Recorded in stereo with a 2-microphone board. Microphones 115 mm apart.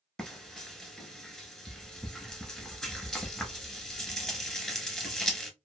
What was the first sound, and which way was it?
Frying, 5° left (ahead or behind).